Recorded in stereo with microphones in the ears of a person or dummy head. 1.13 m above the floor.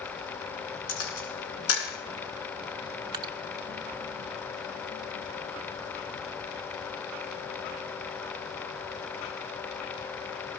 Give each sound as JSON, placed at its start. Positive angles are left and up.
{"t": 0.9, "sound": "a camera shutter", "side_deg": 85, "distance_m": 8.5}
{"t": 3.1, "sound": "dripping", "side_deg": -20, "distance_m": 0.9}